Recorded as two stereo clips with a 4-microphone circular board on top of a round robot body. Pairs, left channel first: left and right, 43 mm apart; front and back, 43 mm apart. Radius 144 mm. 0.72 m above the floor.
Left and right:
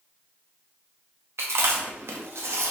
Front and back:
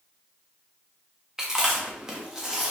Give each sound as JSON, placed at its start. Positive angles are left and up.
{"t": 1.4, "sound": "chewing", "azimuth_deg": -105, "distance_m": 0.5}